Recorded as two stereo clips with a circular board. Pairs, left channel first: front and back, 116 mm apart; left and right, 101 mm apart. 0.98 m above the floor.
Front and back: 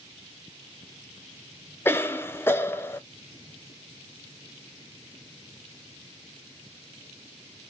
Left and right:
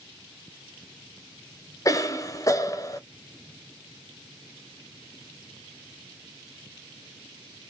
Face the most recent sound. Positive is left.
turn(degrees=60)